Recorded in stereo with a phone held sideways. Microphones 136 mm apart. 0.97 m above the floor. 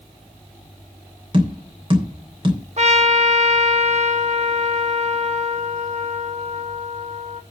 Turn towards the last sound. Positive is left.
turn(degrees=-55)  # may be behind; listen again after turning